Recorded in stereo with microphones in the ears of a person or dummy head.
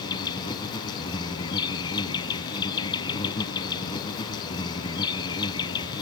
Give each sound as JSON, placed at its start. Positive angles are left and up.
{"t": 0.0, "sound": "an insect", "side_deg": 25}